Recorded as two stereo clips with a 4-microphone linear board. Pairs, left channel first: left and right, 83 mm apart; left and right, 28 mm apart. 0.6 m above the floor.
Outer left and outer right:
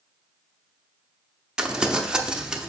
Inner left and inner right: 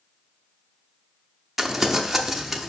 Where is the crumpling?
10° right (ahead or behind), 0.5 m.